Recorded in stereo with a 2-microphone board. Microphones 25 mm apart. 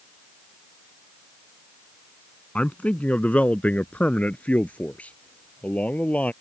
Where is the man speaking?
55° left (ahead or behind); by 6.3 s 60° left (ahead or behind).